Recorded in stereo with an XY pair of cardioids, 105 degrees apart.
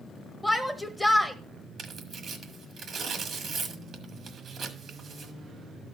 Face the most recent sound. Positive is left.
turn(degrees=-55)